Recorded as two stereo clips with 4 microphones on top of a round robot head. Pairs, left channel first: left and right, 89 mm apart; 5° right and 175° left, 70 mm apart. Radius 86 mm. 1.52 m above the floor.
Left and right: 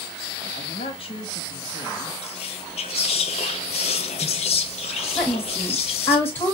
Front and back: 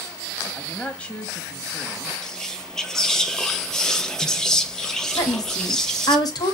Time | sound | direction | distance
0.5 | a man speaking | 65° left | 1.3 m
2.2 | whispering | 75° left | 0.7 m
5.2 | a woman speaking | 20° left | 1.6 m